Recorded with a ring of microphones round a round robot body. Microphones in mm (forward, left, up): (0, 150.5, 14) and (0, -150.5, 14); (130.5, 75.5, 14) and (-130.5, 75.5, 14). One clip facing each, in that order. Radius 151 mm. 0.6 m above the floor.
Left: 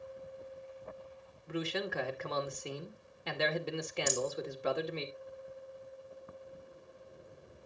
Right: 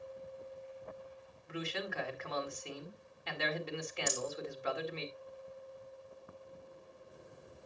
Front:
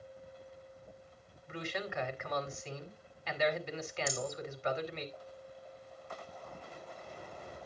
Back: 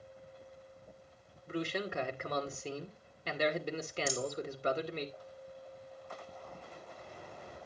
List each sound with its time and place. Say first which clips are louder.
1.5 s a man speaking: left 5 dB, back 4 dB; 135° left, 2 m
4.1 s a rattle: left 5 dB, back 3 dB; 125° left, 3.5 m